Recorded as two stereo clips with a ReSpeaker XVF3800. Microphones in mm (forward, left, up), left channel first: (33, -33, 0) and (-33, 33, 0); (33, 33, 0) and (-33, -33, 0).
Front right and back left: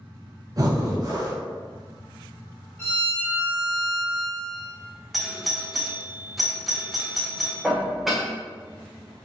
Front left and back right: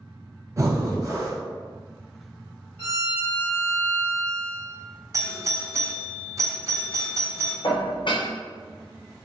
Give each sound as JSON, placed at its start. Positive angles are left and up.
{"t": 0.6, "sound": "breathing", "azimuth_deg": 175, "distance_m": 0.6}
{"t": 2.8, "sound": "a violin", "azimuth_deg": -15, "distance_m": 1.4}
{"t": 5.1, "sound": "a doorbell", "azimuth_deg": -135, "distance_m": 0.5}
{"t": 7.6, "sound": "dishes clattering", "azimuth_deg": 45, "distance_m": 0.5}